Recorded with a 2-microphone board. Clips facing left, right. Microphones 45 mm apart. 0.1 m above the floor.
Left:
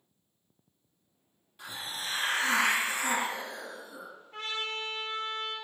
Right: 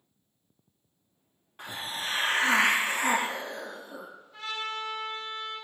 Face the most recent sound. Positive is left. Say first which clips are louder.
# right 1 dB
turn(degrees=60)  # may be behind; listen again after turning